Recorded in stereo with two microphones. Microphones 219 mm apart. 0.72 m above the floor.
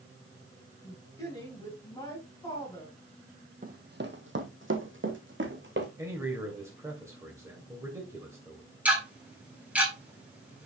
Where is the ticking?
5° right (ahead or behind), 4 m.